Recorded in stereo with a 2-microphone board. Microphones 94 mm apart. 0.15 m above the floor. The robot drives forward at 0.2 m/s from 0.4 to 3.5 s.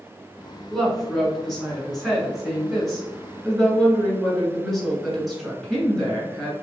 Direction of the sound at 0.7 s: Centre (ahead or behind).